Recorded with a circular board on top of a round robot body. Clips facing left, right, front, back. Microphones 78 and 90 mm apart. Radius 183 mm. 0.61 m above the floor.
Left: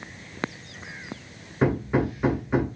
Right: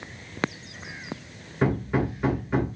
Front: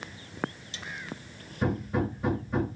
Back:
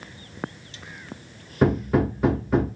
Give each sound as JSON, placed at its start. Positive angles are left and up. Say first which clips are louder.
{"t": 1.6, "sound": "hammering", "louder": "left 2 dB, back 8 dB", "azimuth_deg": 175, "distance_m": 0.6}